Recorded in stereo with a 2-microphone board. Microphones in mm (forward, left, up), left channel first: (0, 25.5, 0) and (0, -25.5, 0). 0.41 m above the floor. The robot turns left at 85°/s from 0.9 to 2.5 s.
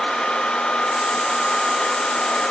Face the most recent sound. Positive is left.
No sound to turn to.